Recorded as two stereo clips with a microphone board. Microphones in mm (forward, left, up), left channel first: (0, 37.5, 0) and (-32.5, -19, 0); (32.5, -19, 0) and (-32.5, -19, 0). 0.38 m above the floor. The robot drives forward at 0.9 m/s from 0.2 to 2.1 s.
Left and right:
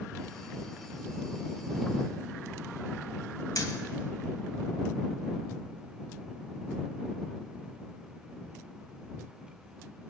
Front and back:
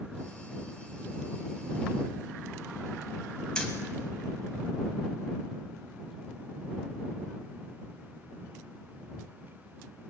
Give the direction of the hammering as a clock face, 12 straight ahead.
10 o'clock.